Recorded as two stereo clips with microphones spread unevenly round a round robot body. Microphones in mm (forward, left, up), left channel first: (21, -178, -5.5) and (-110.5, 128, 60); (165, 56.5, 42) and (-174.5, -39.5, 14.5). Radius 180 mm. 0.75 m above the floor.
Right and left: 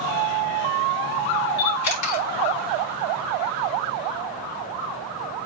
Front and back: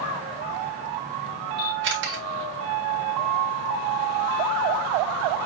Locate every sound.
1.6 s a camera shutter: 105° right, 3.5 m